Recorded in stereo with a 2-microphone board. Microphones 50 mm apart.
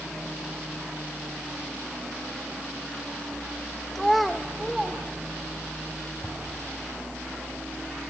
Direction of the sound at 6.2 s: 30° left (ahead or behind).